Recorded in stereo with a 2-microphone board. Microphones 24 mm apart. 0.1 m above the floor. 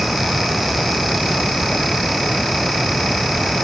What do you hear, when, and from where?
Only background noise.